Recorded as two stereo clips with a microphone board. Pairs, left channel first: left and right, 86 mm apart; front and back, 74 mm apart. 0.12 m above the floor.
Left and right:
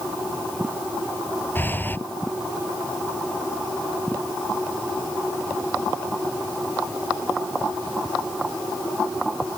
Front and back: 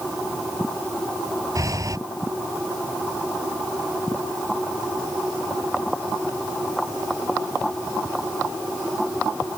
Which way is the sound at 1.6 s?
150° left.